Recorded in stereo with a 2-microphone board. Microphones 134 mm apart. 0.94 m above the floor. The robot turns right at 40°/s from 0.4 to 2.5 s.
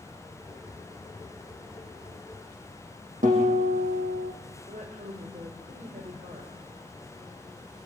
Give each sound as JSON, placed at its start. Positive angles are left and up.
{"t": 3.2, "sound": "a guitar", "side_deg": -75, "distance_m": 7.0}
{"t": 4.7, "sound": "a woman speaking", "side_deg": -75, "distance_m": 4.5}